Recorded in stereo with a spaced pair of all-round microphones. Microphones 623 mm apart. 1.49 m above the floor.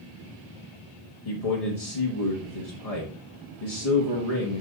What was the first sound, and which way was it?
A man speaking, 70° left (ahead or behind).